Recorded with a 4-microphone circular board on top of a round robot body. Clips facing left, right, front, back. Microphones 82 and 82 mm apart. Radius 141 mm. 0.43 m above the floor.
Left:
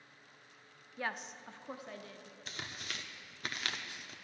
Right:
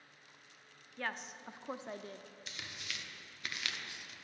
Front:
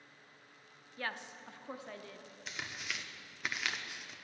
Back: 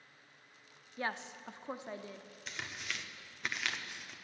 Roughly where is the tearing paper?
Left.